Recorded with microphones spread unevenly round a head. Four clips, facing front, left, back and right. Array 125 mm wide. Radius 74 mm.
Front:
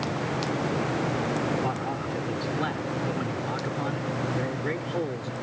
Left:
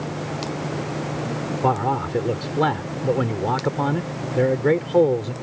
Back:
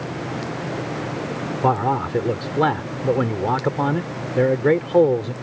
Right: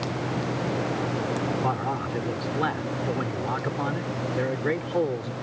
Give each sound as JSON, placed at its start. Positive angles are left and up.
{"t": 1.6, "sound": "a man speaking", "azimuth_deg": 150}